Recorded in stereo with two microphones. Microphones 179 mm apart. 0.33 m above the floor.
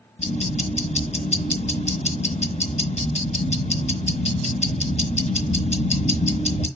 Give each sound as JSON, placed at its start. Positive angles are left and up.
{"t": 0.2, "sound": "ticking", "side_deg": 40, "distance_m": 4.0}